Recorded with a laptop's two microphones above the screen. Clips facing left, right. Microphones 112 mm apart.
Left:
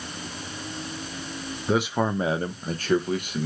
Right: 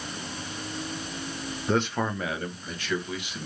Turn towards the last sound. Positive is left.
turn(degrees=50)  # may be behind; listen again after turning